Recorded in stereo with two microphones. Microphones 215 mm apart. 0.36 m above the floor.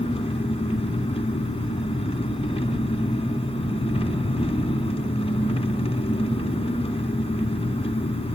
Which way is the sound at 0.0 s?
25° left (ahead or behind).